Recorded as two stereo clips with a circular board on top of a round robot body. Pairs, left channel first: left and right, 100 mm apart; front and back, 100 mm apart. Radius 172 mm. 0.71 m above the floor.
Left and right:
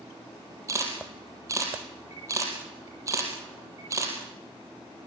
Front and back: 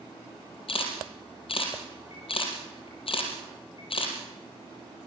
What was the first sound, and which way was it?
A camera shutter, 30° right.